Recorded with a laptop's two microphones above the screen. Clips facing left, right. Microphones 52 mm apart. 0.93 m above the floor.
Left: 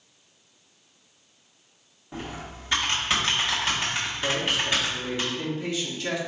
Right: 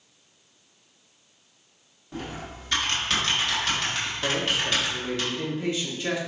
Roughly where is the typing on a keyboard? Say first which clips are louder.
Right 1 dB; centre.